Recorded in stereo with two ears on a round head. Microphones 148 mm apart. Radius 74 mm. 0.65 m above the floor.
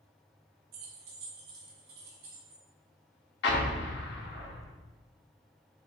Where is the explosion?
70° left (ahead or behind), 0.9 m.